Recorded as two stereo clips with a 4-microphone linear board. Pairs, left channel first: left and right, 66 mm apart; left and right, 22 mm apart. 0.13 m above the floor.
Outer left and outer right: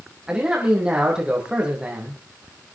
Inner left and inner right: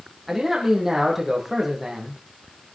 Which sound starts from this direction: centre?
A man speaking, at 0.3 s.